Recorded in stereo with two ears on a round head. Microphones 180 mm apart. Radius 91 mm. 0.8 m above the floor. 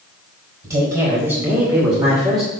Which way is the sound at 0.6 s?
25° right (ahead or behind).